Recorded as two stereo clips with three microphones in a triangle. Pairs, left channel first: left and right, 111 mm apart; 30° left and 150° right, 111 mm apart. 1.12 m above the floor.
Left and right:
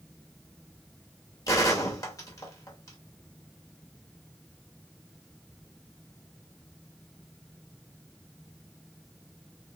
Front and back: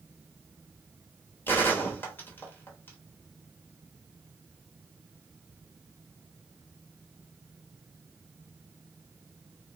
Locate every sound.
1.5 s a gunshot: 85° left, 0.9 m